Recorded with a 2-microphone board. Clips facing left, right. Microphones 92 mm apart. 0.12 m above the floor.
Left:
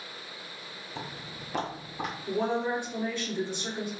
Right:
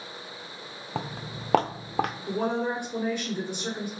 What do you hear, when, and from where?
0.9 s footsteps: 60° right (ahead or behind), 0.5 m
2.3 s a woman speaking: 15° right (ahead or behind), 1.8 m